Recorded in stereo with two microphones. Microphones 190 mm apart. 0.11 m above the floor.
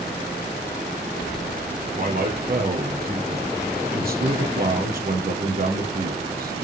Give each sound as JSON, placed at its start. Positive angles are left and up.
{"t": 2.0, "sound": "a man speaking", "side_deg": -60, "distance_m": 4.0}